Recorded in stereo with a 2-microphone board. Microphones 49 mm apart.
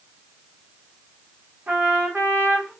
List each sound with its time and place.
1.7 s a trumpet: 35° right (ahead or behind), 1.7 m